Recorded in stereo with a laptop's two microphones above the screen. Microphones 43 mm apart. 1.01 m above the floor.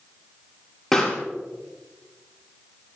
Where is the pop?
5° left (ahead or behind), 5.5 m.